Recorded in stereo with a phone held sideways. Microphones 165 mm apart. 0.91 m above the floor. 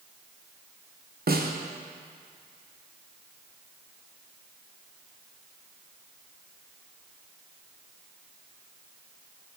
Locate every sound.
1.3 s a snare drum: 70° right (ahead or behind), 0.6 m